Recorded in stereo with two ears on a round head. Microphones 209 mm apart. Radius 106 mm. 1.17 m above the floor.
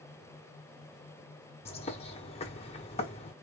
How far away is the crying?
No crying in this recording.